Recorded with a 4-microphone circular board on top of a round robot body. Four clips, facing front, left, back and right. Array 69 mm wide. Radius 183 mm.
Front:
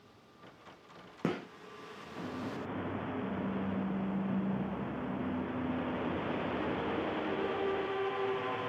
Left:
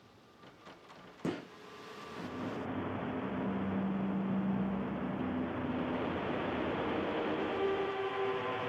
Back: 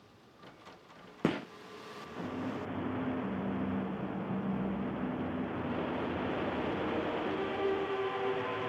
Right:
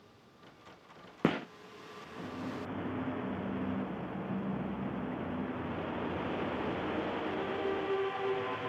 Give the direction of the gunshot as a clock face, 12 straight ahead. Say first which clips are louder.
Right 7 dB, back 3 dB; 3 o'clock.